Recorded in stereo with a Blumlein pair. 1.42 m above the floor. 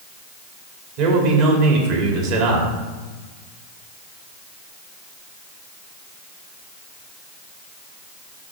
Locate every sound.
1.0 s a man speaking: 45° right, 3 m